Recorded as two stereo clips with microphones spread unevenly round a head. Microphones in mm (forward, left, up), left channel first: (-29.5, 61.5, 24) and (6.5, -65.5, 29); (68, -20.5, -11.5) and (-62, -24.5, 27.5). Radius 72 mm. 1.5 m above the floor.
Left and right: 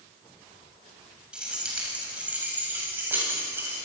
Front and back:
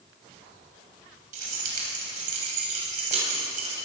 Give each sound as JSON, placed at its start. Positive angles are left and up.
{"t": 1.3, "sound": "keys jangling", "azimuth_deg": -155, "distance_m": 7.5}